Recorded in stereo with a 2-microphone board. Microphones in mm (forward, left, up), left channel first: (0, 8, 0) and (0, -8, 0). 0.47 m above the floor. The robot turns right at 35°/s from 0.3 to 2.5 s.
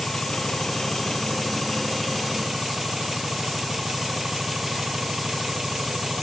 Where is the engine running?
125° left; by 6.2 s 155° right.